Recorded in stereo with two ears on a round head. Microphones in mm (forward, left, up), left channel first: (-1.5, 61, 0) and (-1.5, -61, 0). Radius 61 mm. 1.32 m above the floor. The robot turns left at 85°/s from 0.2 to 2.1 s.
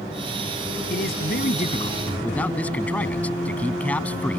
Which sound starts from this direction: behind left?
A man speaking, at 0.9 s.